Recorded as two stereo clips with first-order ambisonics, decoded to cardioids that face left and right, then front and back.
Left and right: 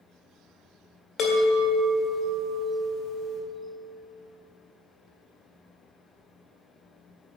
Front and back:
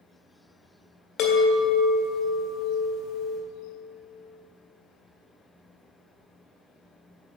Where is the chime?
35° left, 1.8 m.